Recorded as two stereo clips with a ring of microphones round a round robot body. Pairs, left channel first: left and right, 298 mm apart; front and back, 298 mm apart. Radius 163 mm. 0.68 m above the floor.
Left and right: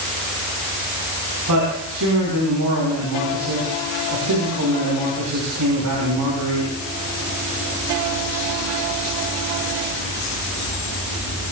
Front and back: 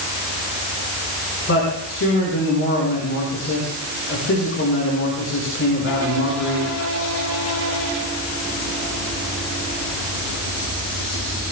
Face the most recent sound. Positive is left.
turn(degrees=-50)